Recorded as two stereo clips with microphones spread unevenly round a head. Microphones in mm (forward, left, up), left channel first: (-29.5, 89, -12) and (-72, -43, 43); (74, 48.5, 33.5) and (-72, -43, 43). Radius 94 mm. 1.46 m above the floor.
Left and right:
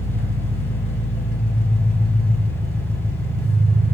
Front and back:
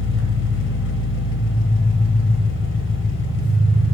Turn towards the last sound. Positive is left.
turn(degrees=10)